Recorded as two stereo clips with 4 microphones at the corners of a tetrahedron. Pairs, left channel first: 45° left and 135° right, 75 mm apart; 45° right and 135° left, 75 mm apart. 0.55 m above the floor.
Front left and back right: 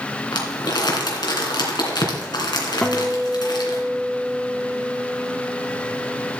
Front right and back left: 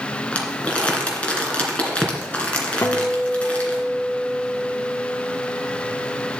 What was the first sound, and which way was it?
Crumpling, 30° left.